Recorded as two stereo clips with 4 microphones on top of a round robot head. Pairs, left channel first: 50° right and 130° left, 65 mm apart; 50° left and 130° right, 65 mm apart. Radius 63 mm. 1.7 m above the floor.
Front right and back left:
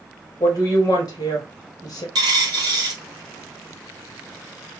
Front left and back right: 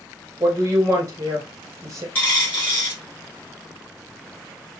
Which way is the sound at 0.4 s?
85° right.